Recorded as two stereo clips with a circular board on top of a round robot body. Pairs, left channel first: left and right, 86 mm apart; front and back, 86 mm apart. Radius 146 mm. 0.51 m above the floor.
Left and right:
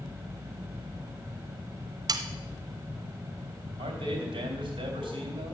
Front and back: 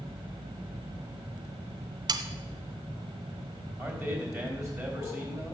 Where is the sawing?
140° right, 0.6 m.